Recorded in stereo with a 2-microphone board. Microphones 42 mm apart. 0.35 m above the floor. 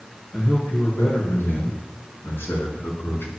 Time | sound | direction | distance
0.3 | a man speaking | 50° left (ahead or behind) | 5 m